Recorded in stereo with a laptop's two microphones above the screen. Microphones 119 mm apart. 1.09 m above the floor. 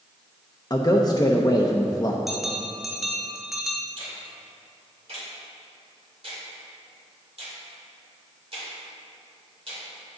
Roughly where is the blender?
No blender in this recording.